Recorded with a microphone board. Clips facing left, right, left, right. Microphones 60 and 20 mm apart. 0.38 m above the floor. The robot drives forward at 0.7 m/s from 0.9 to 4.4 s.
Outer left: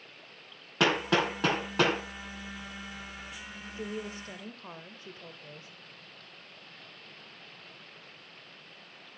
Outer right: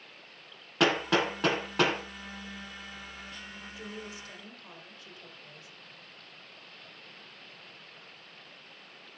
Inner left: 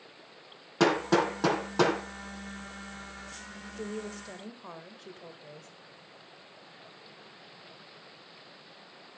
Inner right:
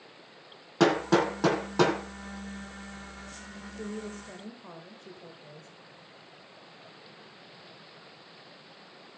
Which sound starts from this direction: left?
A woman speaking, at 3.8 s.